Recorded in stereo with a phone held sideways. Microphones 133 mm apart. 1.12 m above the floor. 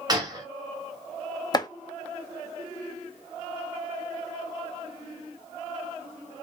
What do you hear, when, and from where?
0.1 s a gunshot: 30° right (ahead or behind), 1.8 m
1.5 s chopping: 30° left (ahead or behind), 0.6 m